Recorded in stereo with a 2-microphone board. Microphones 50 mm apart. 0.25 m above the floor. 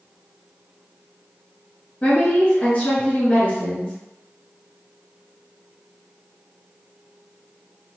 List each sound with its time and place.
2.0 s a woman speaking: 30° left (ahead or behind), 1.5 m